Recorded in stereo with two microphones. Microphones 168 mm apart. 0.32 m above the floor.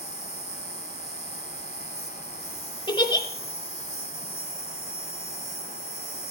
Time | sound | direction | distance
0.0 | an insect | 70° right (ahead or behind) | 1.0 m
2.9 | a giggle | 30° left (ahead or behind) | 0.9 m